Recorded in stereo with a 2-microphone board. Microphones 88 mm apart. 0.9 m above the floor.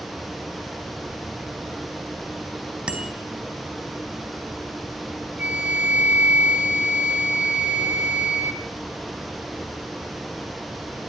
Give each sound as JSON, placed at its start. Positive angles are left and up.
{"t": 2.9, "sound": "a bicycle bell", "side_deg": -10, "distance_m": 4.5}
{"t": 5.4, "sound": "a flute", "side_deg": -15, "distance_m": 2.5}